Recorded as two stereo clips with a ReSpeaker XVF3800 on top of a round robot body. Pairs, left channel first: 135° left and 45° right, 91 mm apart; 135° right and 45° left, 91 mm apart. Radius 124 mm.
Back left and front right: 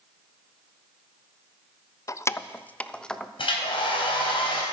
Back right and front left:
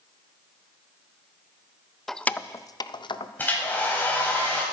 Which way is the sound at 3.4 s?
155° left.